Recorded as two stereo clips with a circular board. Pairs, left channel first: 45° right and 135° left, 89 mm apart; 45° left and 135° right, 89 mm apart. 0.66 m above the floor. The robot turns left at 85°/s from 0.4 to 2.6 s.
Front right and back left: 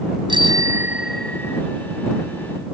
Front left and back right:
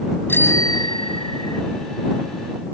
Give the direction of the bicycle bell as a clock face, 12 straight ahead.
8 o'clock.